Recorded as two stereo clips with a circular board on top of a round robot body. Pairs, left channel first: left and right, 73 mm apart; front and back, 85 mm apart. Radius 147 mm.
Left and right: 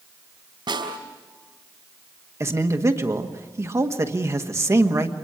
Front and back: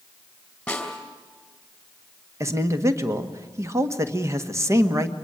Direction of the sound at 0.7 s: 80° right.